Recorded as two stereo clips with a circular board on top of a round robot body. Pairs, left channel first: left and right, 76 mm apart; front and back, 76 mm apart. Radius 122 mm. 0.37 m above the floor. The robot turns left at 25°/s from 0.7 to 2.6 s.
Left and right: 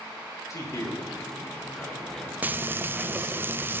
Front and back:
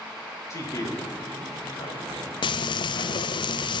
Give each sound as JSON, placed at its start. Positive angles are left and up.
{"t": 0.5, "sound": "a man speaking", "azimuth_deg": 45, "distance_m": 5.0}
{"t": 2.4, "sound": "frying", "azimuth_deg": -20, "distance_m": 0.5}